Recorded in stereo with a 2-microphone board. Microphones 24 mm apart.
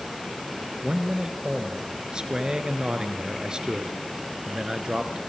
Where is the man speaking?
35° right (ahead or behind), 2.5 m.